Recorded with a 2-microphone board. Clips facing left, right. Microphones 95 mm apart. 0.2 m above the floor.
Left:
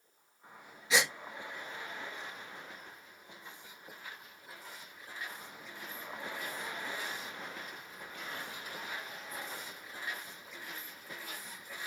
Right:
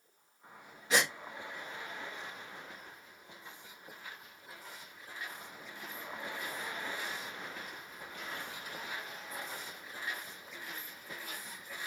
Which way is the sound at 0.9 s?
50° right (ahead or behind).